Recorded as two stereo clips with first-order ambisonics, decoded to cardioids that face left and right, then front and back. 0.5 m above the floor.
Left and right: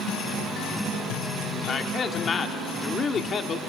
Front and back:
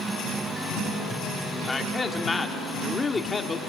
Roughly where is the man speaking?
Ahead left.